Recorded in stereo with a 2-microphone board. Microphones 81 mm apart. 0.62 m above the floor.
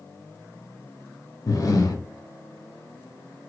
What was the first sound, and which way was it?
Breathing, 45° left (ahead or behind).